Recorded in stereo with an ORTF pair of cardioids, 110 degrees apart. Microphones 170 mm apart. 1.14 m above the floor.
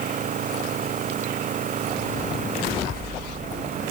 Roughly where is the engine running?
Ahead right.